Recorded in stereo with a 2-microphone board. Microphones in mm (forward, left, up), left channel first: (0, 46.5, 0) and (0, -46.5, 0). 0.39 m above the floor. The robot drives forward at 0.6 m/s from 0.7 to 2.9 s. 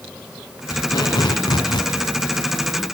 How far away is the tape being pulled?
About 3.5 m.